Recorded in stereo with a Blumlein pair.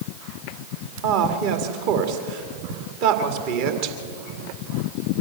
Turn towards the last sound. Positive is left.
turn(degrees=-45)